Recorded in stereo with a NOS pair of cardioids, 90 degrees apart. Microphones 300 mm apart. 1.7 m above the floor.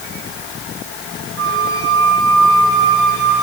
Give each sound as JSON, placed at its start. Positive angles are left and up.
{"t": 1.4, "sound": "a flute", "azimuth_deg": -70, "distance_m": 3.0}